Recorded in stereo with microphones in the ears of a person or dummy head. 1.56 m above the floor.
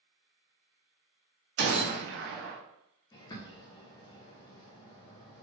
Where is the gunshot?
50° right (ahead or behind), 0.6 m.